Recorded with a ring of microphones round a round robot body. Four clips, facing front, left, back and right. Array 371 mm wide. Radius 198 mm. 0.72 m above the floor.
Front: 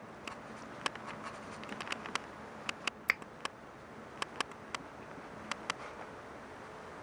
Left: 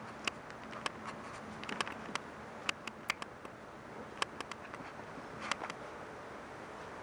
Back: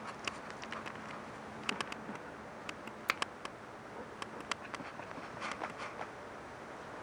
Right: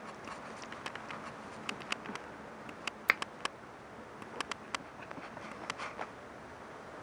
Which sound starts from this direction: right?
A finger snap, at 3.1 s.